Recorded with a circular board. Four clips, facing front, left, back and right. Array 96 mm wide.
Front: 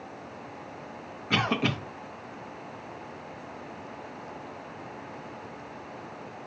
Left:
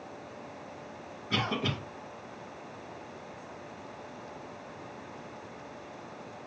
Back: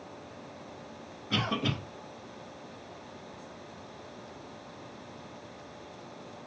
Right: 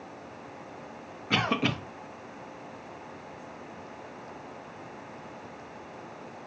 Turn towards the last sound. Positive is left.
turn(degrees=-40)